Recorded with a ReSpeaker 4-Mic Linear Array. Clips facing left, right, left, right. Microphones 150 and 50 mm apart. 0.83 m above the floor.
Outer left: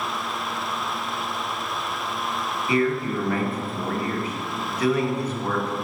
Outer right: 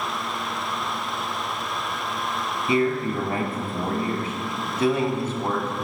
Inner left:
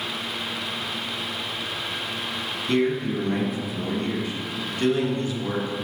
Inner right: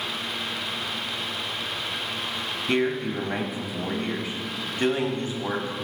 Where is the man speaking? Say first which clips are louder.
Even, inner left 2 dB; 25° right (ahead or behind), 0.9 m.